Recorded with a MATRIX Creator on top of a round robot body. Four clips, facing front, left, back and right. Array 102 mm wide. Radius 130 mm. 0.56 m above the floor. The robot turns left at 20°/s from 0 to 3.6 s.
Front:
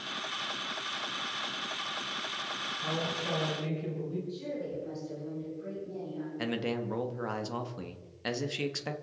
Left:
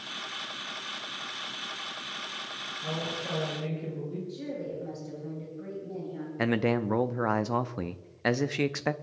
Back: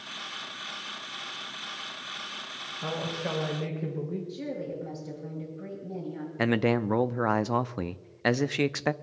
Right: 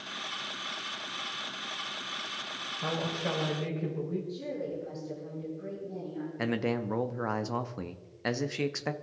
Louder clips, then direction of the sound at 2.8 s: Right 3 dB, back 3 dB; 135° right.